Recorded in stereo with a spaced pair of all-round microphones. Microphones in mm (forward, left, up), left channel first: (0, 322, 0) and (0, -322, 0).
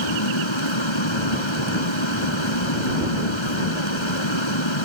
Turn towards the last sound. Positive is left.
turn(degrees=40)  # may be behind; listen again after turning